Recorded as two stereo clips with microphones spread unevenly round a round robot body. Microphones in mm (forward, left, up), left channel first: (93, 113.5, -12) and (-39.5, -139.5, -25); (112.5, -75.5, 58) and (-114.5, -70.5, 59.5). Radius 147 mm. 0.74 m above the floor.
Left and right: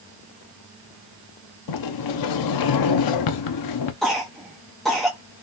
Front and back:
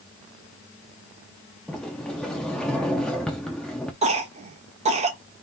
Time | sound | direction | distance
1.7 | a sliding door | 85° left | 0.5 m
4.0 | a cough | 155° left | 0.8 m